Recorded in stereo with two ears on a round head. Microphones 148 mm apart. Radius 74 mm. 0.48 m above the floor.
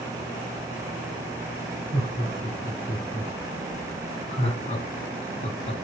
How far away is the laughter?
About 6.5 m.